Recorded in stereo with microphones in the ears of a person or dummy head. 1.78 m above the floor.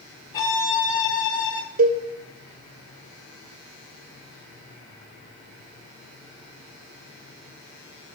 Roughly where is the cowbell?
Right.